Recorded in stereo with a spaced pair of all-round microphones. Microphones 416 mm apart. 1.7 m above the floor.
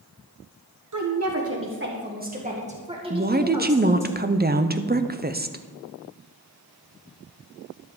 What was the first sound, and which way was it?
A woman speaking, 50° right (ahead or behind).